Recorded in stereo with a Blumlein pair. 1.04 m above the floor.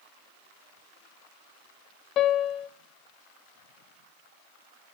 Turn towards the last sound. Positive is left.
turn(degrees=30)